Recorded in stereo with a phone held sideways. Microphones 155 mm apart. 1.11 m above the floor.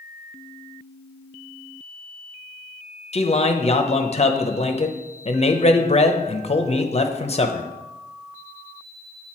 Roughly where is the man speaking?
Left.